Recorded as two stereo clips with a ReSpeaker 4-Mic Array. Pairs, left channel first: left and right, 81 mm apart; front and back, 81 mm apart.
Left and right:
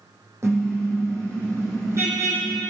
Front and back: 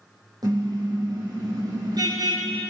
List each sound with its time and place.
0.4 s a car horn: 145° right, 5.5 m